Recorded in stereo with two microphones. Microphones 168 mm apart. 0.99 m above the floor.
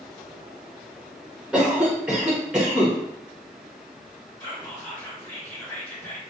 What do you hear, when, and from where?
1.5 s a cough: 5° right (ahead or behind), 0.6 m
4.4 s whispering: 15° left (ahead or behind), 1.6 m